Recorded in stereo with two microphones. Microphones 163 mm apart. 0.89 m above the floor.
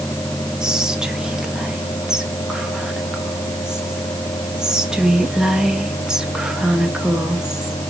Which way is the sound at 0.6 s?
5° right (ahead or behind).